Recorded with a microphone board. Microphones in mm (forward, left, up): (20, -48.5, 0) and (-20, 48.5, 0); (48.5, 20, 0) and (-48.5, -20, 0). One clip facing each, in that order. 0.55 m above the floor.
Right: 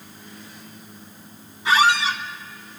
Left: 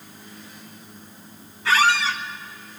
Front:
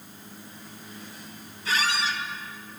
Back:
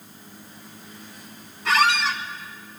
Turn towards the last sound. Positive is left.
turn(degrees=-140)